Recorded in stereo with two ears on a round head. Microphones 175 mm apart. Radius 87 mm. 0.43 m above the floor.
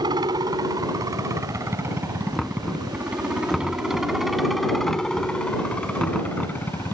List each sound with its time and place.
0.0 s a helicopter: 20° right (ahead or behind); by 7.0 s 10° left (ahead or behind)
2.4 s knocking: centre (ahead or behind)